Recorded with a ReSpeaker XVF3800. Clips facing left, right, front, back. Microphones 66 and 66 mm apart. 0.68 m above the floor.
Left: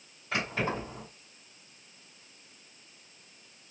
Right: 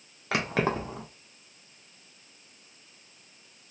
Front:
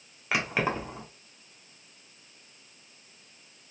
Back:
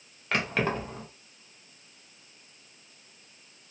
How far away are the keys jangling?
About 0.8 m.